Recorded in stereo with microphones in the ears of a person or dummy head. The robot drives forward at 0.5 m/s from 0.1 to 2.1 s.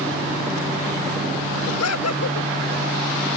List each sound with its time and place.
1.7 s laughter: 85° left; by 2.5 s 75° left (ahead or behind)